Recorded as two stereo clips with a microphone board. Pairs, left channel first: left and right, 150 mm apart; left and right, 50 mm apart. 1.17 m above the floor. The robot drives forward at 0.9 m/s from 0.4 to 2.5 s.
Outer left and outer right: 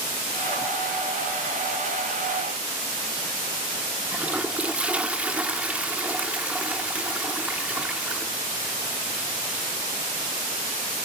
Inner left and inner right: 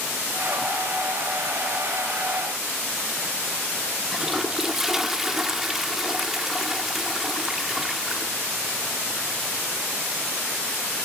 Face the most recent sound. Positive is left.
turn(degrees=-10)  # may be behind; listen again after turning